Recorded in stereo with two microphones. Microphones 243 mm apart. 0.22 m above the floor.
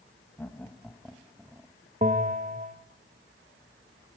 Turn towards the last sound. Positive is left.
turn(degrees=-30)  # may be behind; listen again after turning